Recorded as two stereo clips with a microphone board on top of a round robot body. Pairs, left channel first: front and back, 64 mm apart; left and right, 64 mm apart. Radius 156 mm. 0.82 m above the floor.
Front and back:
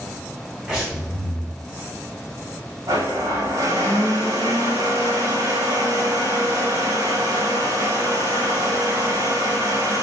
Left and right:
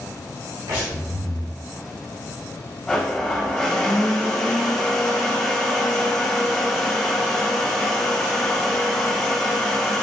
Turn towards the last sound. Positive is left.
turn(degrees=-175)